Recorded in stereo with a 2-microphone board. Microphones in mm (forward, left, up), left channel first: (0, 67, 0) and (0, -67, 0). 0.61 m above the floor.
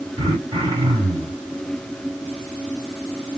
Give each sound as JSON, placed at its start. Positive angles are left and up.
{"t": 0.2, "sound": "throat clearing", "side_deg": -40, "distance_m": 2.0}